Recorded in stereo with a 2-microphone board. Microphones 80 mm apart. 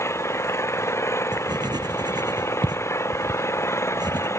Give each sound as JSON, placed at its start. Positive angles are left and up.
{"t": 0.0, "sound": "an engine running", "side_deg": 35}
{"t": 1.3, "sound": "writing", "side_deg": -60}